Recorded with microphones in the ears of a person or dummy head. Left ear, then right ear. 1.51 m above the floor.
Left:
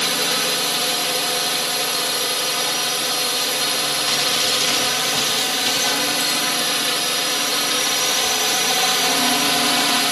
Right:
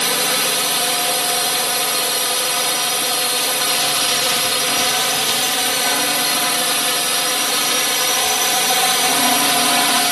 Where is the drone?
20° right (ahead or behind).